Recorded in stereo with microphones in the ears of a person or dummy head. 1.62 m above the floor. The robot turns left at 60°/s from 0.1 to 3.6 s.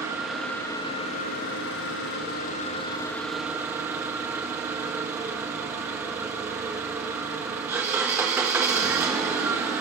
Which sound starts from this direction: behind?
An engine running, at 0.0 s.